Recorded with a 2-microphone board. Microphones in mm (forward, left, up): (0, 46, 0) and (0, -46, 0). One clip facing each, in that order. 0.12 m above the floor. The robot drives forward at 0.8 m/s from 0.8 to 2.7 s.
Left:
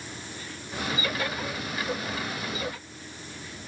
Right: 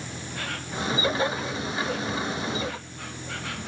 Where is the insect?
80° right; by 3.7 s 85° right.